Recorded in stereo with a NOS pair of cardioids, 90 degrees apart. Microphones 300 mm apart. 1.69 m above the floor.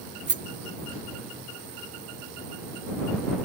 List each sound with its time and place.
0.3 s a rattle: 35° right